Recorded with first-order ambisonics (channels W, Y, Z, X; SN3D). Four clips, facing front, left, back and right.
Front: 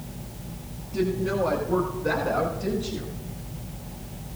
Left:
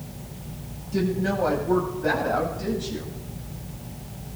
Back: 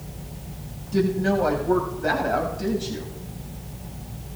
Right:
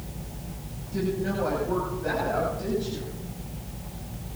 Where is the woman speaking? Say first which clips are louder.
Left 3 dB, back 4 dB; 160° left, 9 m; by 3.1 s 165° left, 10 m.